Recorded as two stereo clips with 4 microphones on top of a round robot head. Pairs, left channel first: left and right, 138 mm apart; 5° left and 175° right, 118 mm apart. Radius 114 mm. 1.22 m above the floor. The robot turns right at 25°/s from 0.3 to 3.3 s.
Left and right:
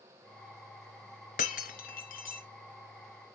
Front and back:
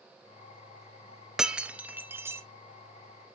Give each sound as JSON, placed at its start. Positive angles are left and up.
{"t": 1.4, "sound": "breaking glass", "azimuth_deg": 100, "distance_m": 0.6}